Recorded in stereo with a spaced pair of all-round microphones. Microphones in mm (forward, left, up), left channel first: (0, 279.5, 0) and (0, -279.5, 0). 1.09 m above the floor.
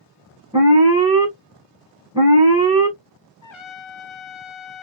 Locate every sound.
0.5 s an alarm: 10° right (ahead or behind), 1.3 m
3.4 s a trumpet: 55° left (ahead or behind), 0.6 m